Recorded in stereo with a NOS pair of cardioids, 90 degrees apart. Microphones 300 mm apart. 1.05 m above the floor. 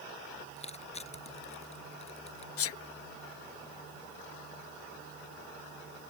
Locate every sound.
0.6 s crushing: 20° left
2.6 s a sneeze: 50° left